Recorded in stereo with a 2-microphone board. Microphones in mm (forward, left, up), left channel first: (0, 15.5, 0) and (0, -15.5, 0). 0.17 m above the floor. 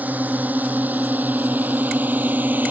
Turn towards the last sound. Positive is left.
turn(degrees=-70)  # may be behind; listen again after turning